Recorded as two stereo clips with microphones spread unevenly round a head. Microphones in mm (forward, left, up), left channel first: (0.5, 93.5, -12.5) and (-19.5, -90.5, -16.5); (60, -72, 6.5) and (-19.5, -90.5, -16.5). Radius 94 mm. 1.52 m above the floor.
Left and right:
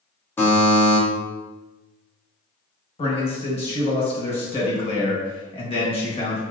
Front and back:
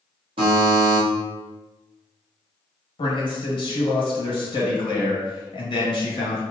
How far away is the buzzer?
About 1.5 m.